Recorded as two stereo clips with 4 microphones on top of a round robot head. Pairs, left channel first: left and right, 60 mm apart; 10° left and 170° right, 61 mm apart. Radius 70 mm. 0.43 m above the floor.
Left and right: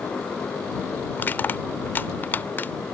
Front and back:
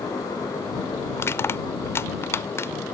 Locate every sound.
1.2 s crushing: 40° left